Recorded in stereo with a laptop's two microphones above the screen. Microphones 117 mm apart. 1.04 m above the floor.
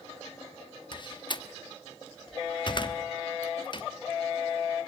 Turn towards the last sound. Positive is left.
turn(degrees=40)  # may be behind; listen again after turning